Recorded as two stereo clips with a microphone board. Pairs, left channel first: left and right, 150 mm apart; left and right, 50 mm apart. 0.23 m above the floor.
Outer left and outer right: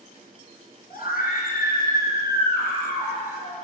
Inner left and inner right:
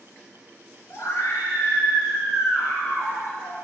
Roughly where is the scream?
Left.